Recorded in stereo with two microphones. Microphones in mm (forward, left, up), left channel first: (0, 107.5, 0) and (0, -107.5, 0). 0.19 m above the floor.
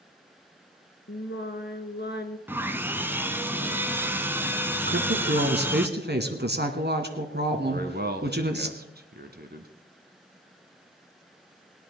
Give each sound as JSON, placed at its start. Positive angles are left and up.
{"t": 1.1, "sound": "singing", "side_deg": 55, "distance_m": 1.4}
{"t": 2.5, "sound": "sawing", "side_deg": -10, "distance_m": 1.0}
{"t": 4.9, "sound": "a woman speaking", "side_deg": -50, "distance_m": 1.9}
{"t": 7.7, "sound": "a man speaking", "side_deg": -50, "distance_m": 1.7}